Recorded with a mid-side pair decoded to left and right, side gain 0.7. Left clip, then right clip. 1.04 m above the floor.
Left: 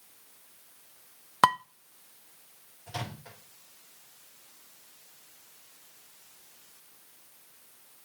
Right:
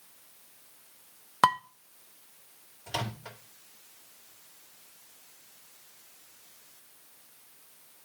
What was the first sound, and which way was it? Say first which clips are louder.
Dishes clattering: left 1 dB; 10° left.